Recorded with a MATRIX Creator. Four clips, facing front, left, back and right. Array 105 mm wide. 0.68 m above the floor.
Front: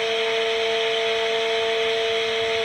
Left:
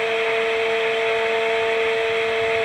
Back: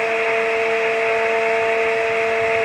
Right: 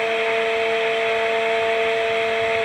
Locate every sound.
Only background noise.